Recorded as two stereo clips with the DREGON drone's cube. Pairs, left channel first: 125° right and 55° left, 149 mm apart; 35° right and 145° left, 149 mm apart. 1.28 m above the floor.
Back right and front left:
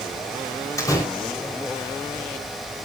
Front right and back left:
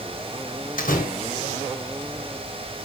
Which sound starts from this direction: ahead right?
A door slam, at 0.8 s.